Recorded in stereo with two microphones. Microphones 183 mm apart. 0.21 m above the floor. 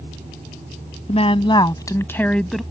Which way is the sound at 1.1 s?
35° left (ahead or behind).